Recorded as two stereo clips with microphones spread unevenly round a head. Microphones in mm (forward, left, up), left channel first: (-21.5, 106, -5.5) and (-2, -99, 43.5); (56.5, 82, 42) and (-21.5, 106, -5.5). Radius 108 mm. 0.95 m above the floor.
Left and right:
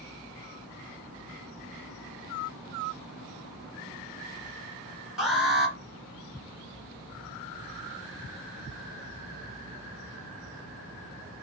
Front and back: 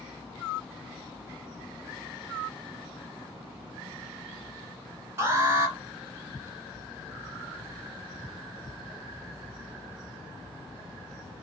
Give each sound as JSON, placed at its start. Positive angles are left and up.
{"t": 5.2, "sound": "an alarm", "azimuth_deg": 180, "distance_m": 2.5}